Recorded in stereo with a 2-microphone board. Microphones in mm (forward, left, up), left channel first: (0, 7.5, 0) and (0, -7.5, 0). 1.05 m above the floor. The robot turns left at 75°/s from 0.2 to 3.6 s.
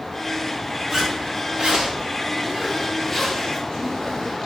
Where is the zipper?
10° right, 5.5 m; by 4.4 s 145° left, 5.5 m.